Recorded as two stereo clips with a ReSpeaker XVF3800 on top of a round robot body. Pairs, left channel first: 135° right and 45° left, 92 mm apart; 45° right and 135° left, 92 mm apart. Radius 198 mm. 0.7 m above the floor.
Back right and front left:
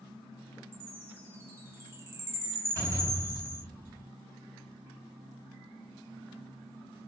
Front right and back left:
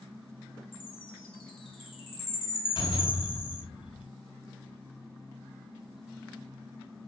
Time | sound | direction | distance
0.7 | a chime | 20° right | 4 m
2.8 | a door slam | 20° right | 7 m